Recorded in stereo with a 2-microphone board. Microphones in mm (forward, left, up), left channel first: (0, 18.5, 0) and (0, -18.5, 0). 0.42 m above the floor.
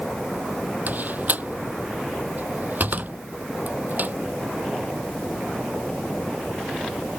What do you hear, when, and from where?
0.9 s a door slam: 50° right (ahead or behind)